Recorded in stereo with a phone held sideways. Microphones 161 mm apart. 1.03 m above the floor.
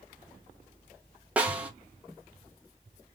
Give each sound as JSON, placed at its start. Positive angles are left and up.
{"t": 1.4, "sound": "a snare drum", "side_deg": -10, "distance_m": 0.9}